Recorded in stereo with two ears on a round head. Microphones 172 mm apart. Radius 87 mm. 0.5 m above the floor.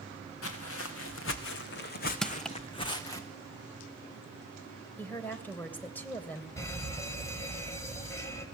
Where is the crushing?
5° left (ahead or behind), 0.5 m.